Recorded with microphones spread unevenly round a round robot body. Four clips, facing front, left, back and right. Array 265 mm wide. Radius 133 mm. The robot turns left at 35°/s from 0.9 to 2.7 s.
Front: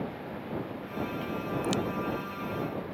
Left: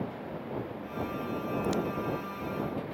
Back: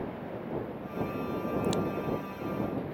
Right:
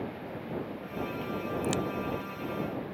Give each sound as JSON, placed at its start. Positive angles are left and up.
{"t": 1.6, "sound": "a crack", "azimuth_deg": -115}